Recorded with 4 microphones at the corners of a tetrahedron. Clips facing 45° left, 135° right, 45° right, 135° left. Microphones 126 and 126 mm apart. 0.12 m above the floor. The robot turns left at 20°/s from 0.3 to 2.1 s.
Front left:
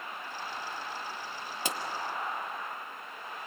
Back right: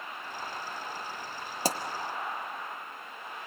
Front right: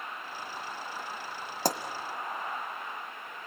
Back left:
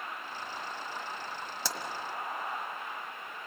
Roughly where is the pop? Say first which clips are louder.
Back right 6 dB, front right 10 dB; right.